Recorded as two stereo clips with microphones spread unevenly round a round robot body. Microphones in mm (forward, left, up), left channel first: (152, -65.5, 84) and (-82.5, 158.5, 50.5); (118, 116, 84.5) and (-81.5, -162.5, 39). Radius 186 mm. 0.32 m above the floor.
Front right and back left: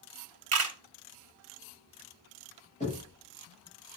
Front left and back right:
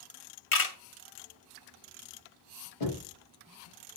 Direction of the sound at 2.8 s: 25° left.